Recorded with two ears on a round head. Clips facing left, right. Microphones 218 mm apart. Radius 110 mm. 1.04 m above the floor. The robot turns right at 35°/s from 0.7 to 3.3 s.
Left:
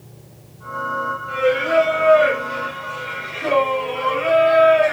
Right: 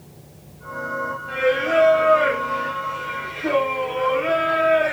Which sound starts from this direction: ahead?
Singing, at 1.3 s.